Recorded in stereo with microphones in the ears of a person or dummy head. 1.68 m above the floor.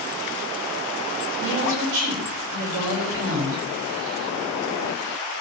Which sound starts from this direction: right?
A woman speaking, at 1.4 s.